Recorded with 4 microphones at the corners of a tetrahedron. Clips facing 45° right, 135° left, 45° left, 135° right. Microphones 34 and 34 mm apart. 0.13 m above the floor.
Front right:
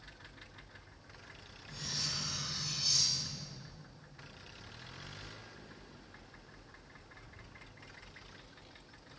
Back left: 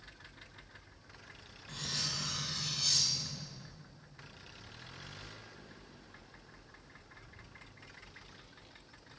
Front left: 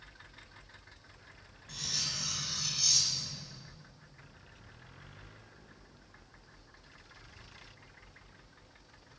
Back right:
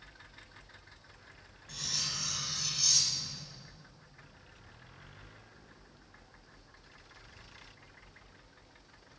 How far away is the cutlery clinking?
About 2.5 m.